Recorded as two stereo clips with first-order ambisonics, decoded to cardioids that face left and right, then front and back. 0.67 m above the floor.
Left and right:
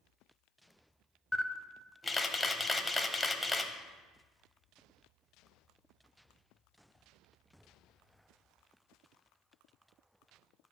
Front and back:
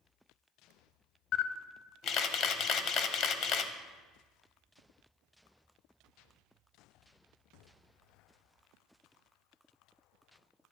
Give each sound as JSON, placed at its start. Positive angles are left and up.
{"t": 1.3, "sound": "a camera shutter", "azimuth_deg": 10, "distance_m": 0.5}